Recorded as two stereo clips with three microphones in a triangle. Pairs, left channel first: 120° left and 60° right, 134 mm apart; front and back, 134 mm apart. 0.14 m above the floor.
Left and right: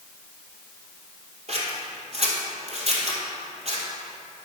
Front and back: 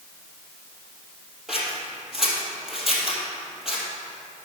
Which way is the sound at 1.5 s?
95° right.